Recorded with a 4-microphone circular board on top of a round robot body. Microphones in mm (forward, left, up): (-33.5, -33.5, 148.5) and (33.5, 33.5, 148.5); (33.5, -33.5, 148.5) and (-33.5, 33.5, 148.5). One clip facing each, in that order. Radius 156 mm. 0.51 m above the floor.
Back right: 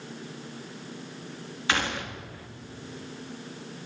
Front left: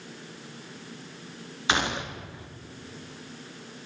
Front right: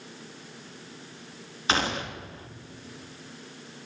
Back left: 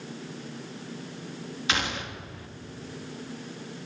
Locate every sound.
1.7 s a gunshot: 15° right, 1.1 m